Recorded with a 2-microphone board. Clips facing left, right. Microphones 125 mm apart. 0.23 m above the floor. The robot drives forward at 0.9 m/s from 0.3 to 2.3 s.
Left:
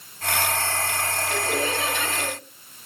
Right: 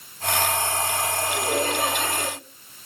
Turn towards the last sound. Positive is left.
turn(degrees=-45)  # may be behind; listen again after turning